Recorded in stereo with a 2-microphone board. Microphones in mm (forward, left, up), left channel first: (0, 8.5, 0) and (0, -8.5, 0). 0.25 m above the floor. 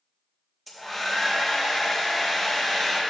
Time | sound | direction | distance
0.7 | a hair dryer | centre (ahead or behind) | 4 m